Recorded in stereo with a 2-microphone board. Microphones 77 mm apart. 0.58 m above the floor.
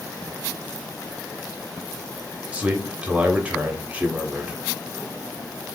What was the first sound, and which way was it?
A man speaking, 15° right (ahead or behind).